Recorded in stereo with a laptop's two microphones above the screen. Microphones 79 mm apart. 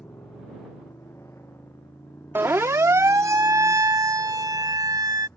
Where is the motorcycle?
35° left (ahead or behind); by 5.4 s 30° left (ahead or behind).